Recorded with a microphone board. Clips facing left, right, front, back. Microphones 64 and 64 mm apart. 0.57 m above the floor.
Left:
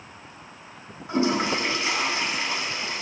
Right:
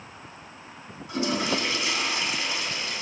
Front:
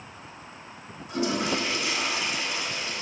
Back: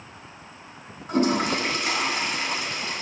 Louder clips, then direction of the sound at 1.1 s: Left 4 dB, back 5 dB; 150° left.